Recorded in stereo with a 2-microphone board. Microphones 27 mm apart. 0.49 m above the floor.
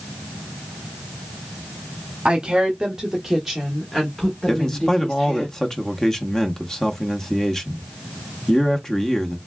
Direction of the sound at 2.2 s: 40° right (ahead or behind).